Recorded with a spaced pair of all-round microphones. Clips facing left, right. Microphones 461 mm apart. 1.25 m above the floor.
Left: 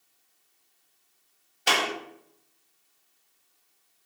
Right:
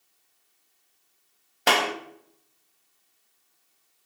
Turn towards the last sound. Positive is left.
turn(degrees=-70)  # may be behind; listen again after turning